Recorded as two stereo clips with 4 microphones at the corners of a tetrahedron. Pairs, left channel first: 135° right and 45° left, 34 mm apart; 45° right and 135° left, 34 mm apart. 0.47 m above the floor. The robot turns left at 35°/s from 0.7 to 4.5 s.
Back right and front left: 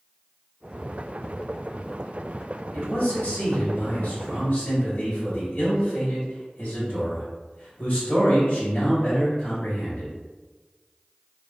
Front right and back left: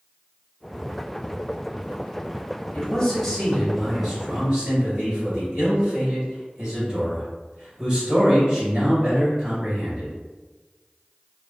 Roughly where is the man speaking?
Right.